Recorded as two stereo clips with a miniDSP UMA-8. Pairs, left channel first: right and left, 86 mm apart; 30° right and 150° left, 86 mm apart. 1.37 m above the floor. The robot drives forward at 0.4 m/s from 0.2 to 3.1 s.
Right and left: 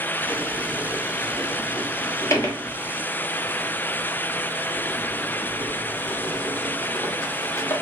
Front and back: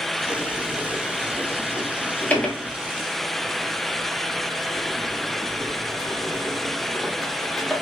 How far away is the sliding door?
About 1.2 m.